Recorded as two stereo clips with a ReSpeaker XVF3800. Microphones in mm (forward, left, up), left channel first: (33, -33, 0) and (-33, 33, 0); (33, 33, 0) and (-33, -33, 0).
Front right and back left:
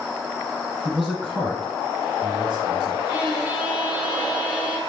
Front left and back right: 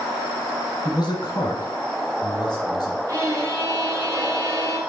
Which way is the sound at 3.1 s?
160° right.